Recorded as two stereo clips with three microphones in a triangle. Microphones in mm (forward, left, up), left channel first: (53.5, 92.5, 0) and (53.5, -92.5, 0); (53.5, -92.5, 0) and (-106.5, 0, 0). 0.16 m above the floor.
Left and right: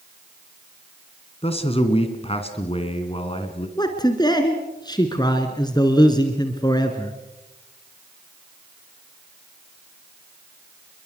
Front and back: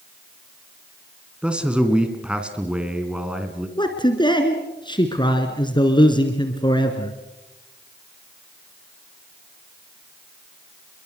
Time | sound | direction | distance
1.4 | a man speaking | 70° left | 1.9 m
3.8 | a man speaking | 30° left | 1.8 m